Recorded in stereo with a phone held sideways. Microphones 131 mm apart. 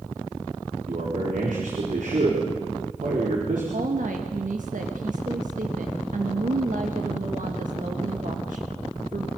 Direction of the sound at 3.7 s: 80° right.